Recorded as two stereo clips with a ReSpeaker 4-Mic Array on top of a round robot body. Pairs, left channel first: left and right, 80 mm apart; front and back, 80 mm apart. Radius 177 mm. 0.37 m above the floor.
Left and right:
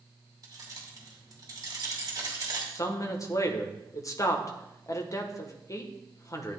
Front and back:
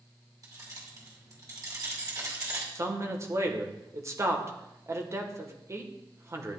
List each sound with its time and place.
0.4 s keys jangling: 135° right, 2 m
2.8 s a man speaking: 130° left, 1.5 m